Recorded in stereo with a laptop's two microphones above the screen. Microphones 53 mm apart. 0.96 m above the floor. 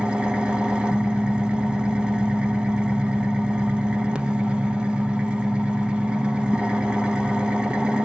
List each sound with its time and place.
0.0 s an engine running: 15° right (ahead or behind), 0.7 m